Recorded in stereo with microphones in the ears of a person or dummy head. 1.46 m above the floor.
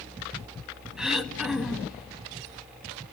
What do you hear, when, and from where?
1.0 s throat clearing: 5° right (ahead or behind), 1.7 m